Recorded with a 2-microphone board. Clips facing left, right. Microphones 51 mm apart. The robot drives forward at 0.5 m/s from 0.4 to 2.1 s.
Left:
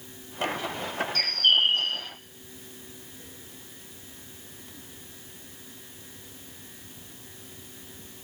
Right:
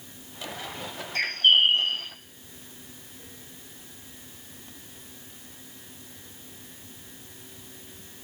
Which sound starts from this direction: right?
A bird, at 1.1 s.